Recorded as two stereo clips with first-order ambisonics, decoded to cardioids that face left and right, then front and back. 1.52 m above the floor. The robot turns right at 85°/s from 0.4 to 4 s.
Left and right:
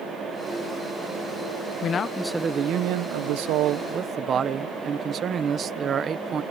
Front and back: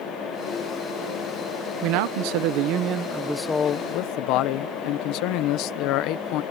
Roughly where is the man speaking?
Behind left.